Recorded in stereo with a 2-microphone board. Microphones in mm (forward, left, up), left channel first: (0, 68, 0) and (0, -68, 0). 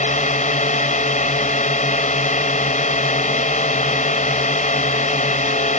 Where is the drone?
65° left (ahead or behind).